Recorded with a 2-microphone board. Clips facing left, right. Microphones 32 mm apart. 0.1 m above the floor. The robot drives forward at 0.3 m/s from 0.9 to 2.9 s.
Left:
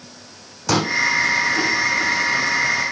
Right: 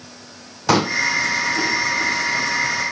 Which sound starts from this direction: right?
A pop, at 0.7 s.